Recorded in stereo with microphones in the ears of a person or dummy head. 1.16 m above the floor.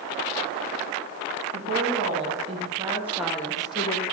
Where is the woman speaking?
45° right (ahead or behind), 2 m; by 4.0 s 35° left (ahead or behind), 1.0 m.